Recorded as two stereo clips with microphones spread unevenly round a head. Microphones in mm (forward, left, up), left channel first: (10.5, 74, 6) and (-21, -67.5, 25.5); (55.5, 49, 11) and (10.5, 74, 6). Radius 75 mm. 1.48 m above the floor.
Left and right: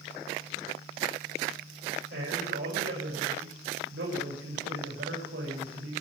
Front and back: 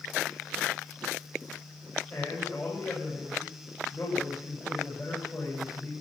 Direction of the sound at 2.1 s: 90° right.